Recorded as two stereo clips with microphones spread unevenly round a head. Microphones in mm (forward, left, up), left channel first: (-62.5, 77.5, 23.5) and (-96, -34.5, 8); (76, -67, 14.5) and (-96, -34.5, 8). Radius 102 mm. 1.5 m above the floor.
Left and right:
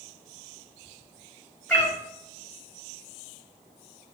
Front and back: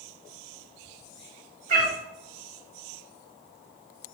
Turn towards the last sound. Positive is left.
turn(degrees=145)